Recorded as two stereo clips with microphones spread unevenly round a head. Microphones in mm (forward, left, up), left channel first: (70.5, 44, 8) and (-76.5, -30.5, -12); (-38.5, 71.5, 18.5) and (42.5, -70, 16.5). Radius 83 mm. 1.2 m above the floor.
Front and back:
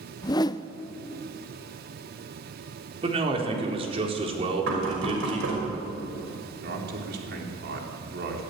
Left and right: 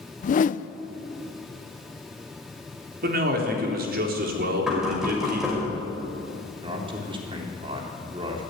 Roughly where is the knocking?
Behind right.